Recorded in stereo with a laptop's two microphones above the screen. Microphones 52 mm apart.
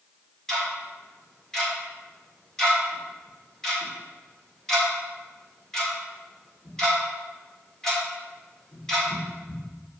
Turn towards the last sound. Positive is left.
turn(degrees=10)  # may be behind; listen again after turning